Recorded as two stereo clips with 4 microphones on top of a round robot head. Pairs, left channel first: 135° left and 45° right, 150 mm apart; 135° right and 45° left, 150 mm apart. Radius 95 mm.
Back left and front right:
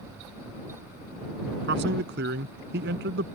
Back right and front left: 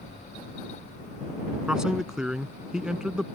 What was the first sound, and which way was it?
A man speaking, 40° right.